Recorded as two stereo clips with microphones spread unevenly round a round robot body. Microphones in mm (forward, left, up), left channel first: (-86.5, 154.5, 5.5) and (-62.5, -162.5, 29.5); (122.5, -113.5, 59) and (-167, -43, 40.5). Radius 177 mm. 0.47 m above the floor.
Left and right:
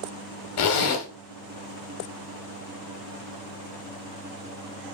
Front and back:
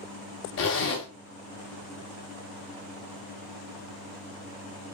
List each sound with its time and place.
0.6 s a zipper: 45° left, 0.6 m